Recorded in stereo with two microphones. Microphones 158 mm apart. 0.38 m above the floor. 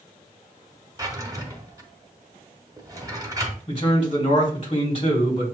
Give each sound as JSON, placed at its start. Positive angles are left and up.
{"t": 1.0, "sound": "a drawer", "side_deg": -20, "distance_m": 1.0}
{"t": 3.7, "sound": "a man speaking", "side_deg": 35, "distance_m": 1.8}